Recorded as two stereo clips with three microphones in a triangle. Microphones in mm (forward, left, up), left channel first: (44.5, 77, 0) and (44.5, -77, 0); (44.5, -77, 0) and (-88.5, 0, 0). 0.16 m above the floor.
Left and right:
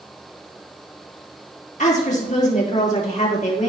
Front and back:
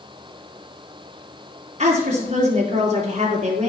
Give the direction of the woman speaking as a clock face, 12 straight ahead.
8 o'clock.